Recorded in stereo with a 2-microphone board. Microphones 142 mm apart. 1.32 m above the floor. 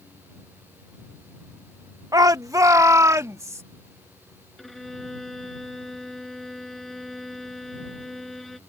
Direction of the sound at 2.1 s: 25° right (ahead or behind).